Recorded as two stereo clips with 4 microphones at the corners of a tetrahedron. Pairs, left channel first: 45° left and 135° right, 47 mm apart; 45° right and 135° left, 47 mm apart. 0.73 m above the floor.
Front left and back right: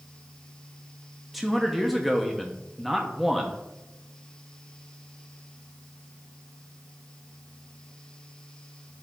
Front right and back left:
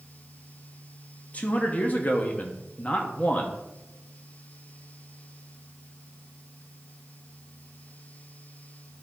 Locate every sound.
1.3 s a man speaking: 50° right, 0.9 m